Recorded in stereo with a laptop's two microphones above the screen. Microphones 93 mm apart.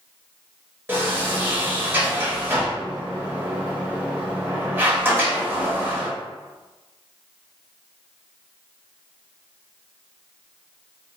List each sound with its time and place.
0.9 s a sliding door: 20° right (ahead or behind), 0.8 m